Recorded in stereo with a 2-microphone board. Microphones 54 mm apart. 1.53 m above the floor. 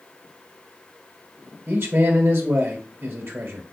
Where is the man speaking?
50° right (ahead or behind), 1.2 m.